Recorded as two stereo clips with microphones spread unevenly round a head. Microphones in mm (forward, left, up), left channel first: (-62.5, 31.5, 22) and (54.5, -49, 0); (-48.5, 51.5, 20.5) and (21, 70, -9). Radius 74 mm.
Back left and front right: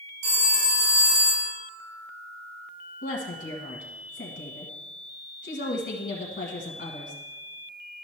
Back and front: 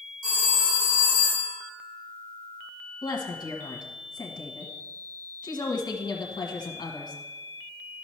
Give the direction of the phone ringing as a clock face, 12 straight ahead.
1 o'clock.